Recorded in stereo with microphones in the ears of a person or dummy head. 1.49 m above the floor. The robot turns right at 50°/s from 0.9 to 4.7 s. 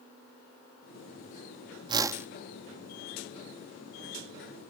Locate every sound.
1.9 s a whoosh: 30° right (ahead or behind); by 2.3 s 10° right (ahead or behind)